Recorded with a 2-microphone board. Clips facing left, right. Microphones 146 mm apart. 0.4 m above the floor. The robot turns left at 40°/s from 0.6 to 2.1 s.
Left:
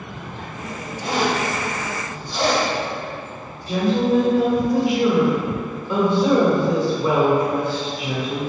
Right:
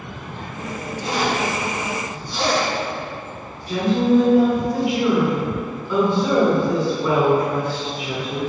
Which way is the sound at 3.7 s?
20° left (ahead or behind).